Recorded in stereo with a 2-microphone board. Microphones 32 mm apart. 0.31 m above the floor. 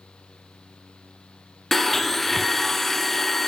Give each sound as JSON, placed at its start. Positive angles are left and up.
{"t": 1.7, "sound": "a blender", "side_deg": 5, "distance_m": 0.5}